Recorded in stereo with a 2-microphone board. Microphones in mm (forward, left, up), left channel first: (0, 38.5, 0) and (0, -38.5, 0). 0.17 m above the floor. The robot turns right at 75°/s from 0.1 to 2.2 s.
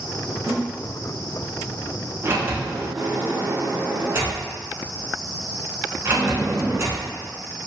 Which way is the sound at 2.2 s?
40° right (ahead or behind).